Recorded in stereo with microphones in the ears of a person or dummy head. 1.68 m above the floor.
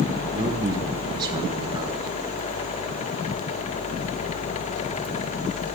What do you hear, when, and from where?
0.3 s a man speaking: 25° right (ahead or behind), 1.3 m